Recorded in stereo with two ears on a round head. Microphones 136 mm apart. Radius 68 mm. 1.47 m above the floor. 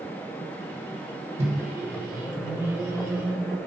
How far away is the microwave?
About 1.4 m.